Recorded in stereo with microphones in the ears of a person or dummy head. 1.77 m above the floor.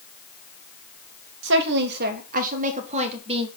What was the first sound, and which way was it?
A woman speaking, 65° right (ahead or behind).